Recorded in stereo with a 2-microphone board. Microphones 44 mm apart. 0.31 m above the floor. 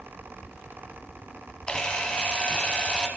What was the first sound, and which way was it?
A camera shutter, 20° left (ahead or behind).